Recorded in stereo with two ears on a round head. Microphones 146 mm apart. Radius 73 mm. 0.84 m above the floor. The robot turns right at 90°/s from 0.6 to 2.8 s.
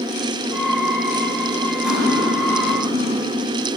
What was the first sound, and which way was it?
Cutlery clinking, 5° right.